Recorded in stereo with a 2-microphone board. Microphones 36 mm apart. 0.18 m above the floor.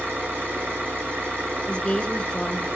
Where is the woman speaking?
25° left (ahead or behind), 2 m.